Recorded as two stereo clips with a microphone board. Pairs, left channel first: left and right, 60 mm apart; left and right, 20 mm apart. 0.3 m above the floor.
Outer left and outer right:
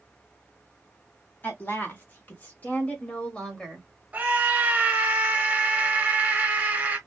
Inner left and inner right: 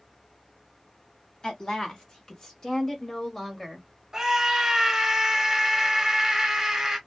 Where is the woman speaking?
40° left (ahead or behind), 1.5 m; by 3.9 s 5° left (ahead or behind), 1.1 m.